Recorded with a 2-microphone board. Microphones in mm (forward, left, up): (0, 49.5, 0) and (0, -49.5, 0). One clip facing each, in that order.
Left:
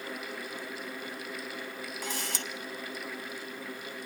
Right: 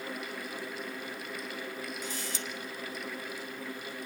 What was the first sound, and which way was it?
A camera shutter, 75° left (ahead or behind).